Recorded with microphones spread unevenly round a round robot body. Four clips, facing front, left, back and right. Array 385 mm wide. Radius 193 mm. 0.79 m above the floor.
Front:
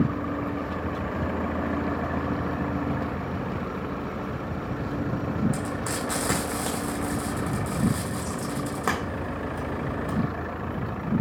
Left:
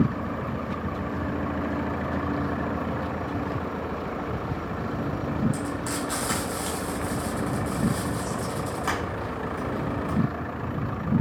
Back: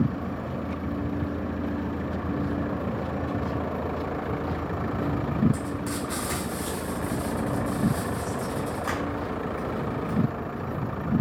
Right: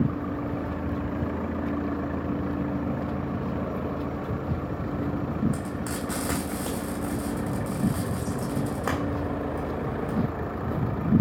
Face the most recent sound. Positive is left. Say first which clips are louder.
# left 2 dB, front 1 dB
turn(degrees=-20)